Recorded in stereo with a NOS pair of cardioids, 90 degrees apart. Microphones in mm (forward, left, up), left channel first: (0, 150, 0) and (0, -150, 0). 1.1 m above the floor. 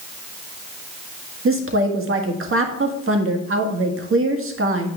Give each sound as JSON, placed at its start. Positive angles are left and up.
{"t": 1.4, "sound": "a woman speaking", "azimuth_deg": -45, "distance_m": 1.7}